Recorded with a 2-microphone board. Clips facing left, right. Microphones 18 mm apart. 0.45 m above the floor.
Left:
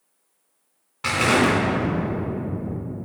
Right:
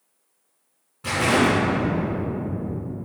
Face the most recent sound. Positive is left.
turn(degrees=60)  # may be behind; listen again after turning